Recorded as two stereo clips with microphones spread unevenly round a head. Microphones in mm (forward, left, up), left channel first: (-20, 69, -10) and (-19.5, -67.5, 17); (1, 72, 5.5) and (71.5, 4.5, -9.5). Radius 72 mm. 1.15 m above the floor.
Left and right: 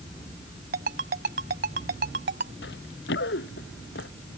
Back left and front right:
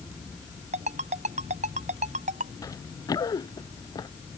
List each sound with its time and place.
0.7 s a ringtone: 65° right
2.6 s running footsteps: 85° left; by 4.1 s 90° left